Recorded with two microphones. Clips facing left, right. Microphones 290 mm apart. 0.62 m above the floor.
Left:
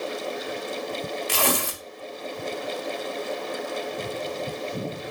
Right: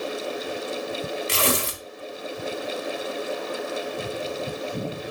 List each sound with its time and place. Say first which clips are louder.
1.3 s tearing paper: left 1 dB; 25° right (ahead or behind), 0.7 m